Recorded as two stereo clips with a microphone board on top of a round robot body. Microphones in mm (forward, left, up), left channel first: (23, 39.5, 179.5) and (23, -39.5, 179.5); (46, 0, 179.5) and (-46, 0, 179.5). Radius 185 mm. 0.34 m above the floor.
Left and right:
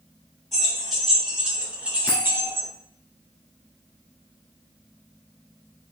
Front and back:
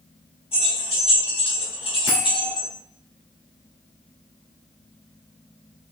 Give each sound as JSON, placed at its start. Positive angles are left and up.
{"t": 0.5, "sound": "keys jangling", "azimuth_deg": 5, "distance_m": 2.0}
{"t": 2.1, "sound": "a bell", "azimuth_deg": 45, "distance_m": 1.4}